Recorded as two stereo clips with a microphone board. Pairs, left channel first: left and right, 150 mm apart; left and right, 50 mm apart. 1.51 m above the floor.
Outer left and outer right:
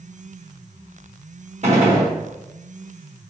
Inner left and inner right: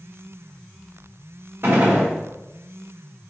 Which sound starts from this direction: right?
A gunshot, at 1.6 s.